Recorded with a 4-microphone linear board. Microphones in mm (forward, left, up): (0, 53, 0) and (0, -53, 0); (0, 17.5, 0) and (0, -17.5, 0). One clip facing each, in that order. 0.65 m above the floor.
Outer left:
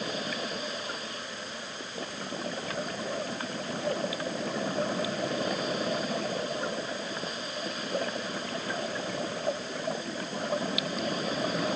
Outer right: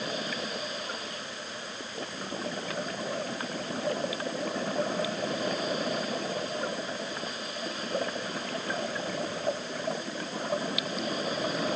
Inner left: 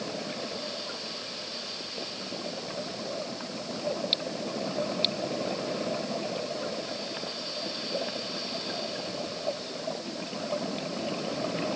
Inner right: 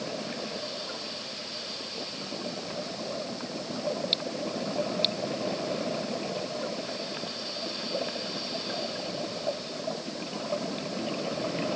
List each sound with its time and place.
Only background noise.